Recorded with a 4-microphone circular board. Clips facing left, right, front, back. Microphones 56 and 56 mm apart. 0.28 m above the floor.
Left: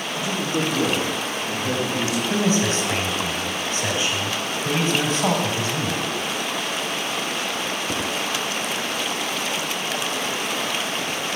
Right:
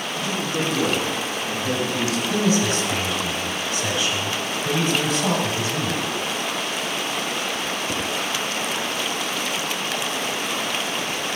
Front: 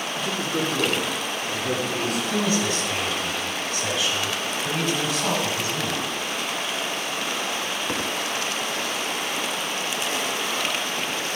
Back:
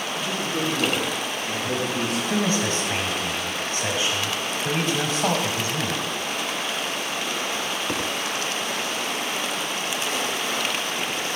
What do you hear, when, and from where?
0.2 s a man speaking: 20° left, 4.5 m
2.3 s a man speaking: 130° left, 1.6 m